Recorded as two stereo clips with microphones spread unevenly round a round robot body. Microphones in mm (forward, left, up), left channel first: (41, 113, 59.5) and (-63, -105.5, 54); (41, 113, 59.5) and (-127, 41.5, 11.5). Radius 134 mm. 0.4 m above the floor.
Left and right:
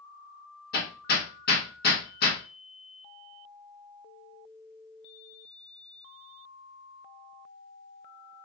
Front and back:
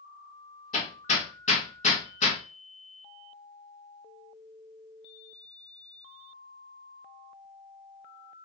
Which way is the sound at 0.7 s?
75° left.